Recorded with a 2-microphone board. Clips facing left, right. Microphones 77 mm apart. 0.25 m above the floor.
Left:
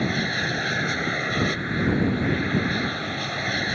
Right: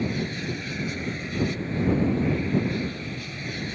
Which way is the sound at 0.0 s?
65° left (ahead or behind).